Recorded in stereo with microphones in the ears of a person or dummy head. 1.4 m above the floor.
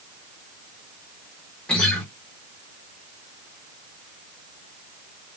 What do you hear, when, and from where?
1.7 s a guitar: 5° left (ahead or behind), 0.7 m